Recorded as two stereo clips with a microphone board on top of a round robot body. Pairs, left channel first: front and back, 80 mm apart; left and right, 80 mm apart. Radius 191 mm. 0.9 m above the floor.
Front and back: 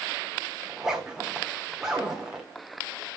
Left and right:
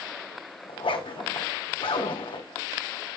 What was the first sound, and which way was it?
A zipper, 95° left.